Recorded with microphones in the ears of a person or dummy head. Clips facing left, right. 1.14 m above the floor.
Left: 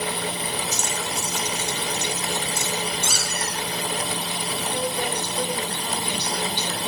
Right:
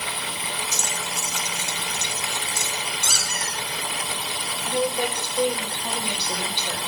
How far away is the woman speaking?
About 6 m.